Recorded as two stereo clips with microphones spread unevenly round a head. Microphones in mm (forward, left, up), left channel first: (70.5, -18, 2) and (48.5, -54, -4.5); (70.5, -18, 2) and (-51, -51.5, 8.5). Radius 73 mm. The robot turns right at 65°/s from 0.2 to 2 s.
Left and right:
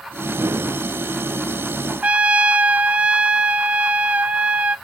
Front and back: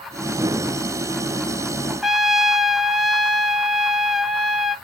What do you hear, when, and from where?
2.0 s a trumpet: 75° right, 0.7 m